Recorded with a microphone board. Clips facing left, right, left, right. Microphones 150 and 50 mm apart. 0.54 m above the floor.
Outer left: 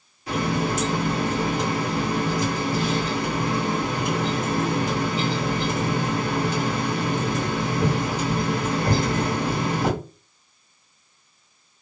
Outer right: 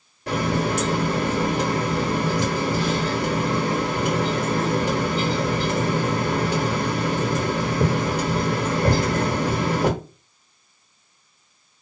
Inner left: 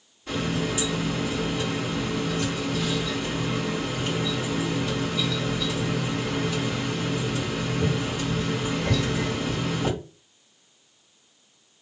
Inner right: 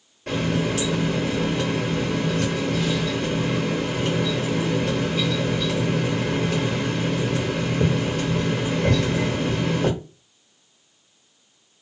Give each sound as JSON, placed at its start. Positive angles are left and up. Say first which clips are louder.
{"t": 0.3, "sound": "a running tap", "louder": "outer right 1 dB, inner right 4 dB", "side_deg": -65, "distance_m": 1.2}